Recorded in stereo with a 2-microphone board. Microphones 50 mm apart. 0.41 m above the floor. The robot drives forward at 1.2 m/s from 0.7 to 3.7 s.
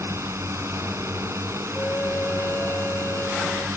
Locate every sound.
0.0 s a drone: 70° right (ahead or behind)
1.8 s a flute: 40° left (ahead or behind); by 3.7 s 60° left (ahead or behind)